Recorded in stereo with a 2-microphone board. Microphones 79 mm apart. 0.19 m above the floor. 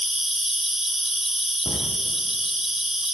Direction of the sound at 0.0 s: 5° right (ahead or behind).